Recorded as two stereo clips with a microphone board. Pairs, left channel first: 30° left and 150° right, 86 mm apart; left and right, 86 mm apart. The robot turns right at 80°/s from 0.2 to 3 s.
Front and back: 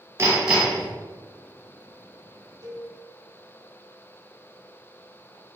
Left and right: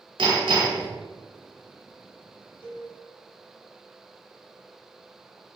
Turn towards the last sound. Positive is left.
turn(degrees=-170)